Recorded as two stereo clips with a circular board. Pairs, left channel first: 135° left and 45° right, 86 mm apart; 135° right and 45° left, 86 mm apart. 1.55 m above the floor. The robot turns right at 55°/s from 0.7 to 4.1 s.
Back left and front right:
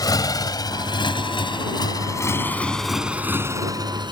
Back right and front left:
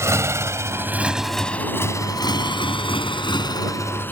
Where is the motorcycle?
100° left; by 4.1 s 70° right.